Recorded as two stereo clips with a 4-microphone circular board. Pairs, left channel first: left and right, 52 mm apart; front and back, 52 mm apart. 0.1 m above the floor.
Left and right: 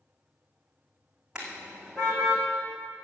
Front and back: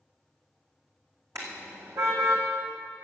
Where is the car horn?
165° right, 3.5 m; by 2.4 s straight behind, 3.5 m.